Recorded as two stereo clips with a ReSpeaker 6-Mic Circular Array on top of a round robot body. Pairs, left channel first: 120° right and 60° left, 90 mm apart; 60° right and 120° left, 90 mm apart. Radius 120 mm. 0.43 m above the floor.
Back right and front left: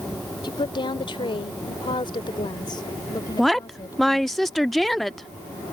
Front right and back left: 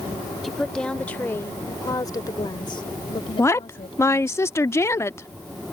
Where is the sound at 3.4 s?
35° right.